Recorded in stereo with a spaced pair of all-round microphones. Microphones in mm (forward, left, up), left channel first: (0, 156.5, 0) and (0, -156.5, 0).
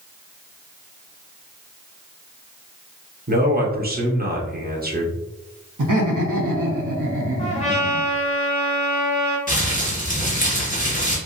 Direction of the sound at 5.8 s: 85° right.